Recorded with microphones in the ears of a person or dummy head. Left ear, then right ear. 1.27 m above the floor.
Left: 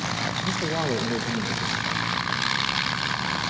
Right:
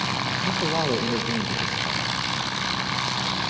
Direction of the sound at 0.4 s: 10° right (ahead or behind).